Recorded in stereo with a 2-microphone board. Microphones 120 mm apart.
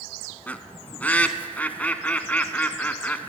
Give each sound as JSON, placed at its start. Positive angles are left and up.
{"t": 0.5, "sound": "a bird", "side_deg": 15, "distance_m": 0.5}